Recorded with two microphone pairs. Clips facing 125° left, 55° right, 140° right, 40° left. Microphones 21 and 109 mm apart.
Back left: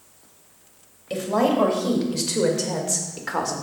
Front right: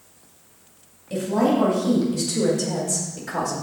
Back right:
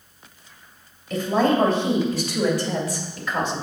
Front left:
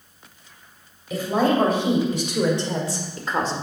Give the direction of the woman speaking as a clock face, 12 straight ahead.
8 o'clock.